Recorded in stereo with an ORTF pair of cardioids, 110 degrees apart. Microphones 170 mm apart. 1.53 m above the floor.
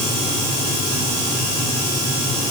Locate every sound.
Only background noise.